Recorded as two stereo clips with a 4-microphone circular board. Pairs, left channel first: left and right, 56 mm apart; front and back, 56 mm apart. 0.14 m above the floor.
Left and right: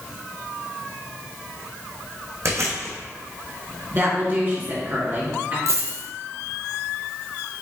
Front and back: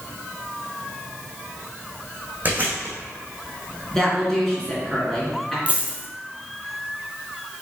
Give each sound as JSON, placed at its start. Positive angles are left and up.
{"t": 2.5, "sound": "chewing", "azimuth_deg": -125, "distance_m": 1.3}
{"t": 3.9, "sound": "a woman speaking", "azimuth_deg": -75, "distance_m": 1.9}
{"t": 5.7, "sound": "a dropped coin", "azimuth_deg": -115, "distance_m": 0.9}